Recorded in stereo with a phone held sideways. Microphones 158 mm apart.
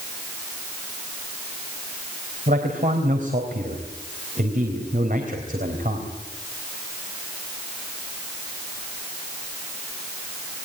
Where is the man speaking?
60° right (ahead or behind), 3.5 m.